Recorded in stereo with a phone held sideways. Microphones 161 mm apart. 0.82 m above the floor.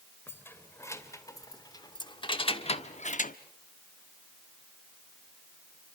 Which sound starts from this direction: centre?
Keys jangling, at 0.3 s.